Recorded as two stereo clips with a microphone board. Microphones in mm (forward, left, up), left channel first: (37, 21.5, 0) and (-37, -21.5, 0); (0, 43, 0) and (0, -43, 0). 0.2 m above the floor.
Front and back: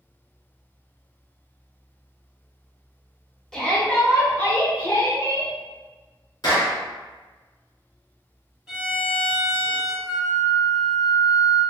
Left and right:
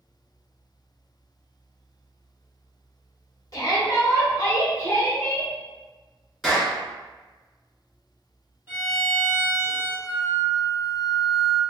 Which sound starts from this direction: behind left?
A flute, at 10.1 s.